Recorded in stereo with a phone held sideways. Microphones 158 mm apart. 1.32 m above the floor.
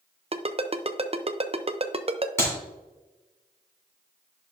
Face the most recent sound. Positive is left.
turn(degrees=15)  # may be behind; listen again after turning